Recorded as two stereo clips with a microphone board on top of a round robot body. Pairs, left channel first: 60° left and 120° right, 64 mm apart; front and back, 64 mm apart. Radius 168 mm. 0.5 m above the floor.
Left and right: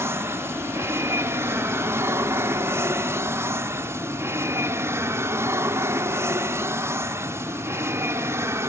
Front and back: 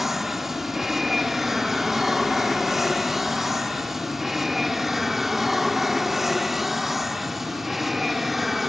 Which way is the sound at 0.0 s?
95° right.